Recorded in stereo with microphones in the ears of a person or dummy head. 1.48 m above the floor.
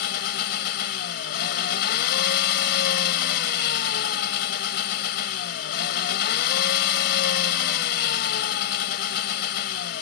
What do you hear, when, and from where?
0.0 s an engine running: 70° left (ahead or behind)